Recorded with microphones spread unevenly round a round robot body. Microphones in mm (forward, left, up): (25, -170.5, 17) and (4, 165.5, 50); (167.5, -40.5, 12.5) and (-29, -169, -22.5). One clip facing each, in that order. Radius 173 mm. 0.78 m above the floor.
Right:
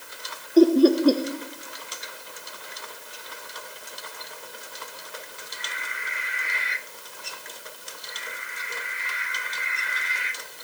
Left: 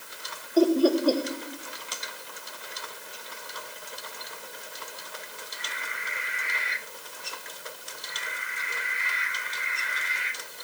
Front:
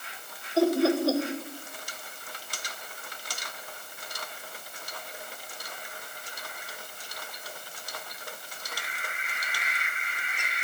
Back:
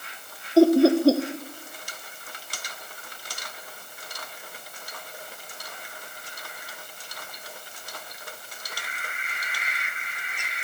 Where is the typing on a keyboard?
No typing on a keyboard in this recording.